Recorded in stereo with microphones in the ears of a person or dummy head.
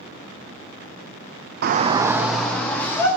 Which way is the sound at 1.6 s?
60° right (ahead or behind).